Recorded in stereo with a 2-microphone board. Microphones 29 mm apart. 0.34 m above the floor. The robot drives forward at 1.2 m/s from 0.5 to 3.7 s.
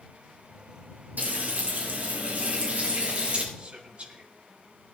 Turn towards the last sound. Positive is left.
turn(degrees=-50)  # may be behind; listen again after turning